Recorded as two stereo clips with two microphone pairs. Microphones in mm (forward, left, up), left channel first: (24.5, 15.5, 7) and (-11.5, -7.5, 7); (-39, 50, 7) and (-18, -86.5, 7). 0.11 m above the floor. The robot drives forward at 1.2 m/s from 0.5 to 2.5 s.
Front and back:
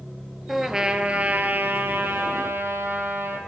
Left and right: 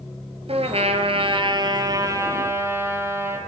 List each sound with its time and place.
0.5 s a trumpet: 65° right, 1.4 m; by 3.4 s 150° right, 2.5 m